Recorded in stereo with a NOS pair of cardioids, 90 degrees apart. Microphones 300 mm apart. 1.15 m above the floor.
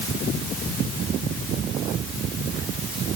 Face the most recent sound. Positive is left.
No sound to turn to.